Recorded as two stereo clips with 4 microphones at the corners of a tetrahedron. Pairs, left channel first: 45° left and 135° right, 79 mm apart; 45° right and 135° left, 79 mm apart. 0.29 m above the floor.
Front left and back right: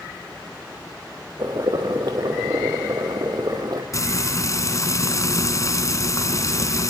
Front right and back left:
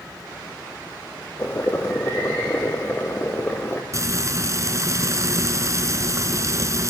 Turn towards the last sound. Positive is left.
turn(degrees=90)